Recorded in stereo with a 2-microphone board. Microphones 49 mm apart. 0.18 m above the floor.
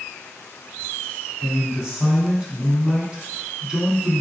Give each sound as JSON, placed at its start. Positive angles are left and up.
{"t": 1.4, "sound": "a man speaking", "side_deg": -15, "distance_m": 1.5}